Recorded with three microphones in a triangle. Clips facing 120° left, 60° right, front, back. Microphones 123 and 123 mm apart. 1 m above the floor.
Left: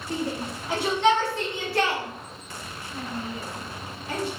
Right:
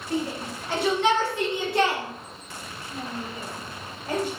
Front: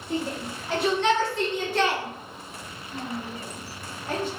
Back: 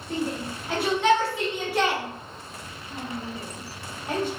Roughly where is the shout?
Left.